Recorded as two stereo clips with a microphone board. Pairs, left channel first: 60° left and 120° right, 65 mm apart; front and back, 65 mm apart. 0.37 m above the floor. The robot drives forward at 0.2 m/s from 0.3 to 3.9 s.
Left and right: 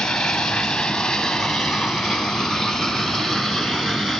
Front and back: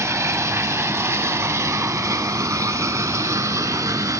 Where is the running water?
140° left, 1.9 m; by 4.2 s 150° left, 2.5 m.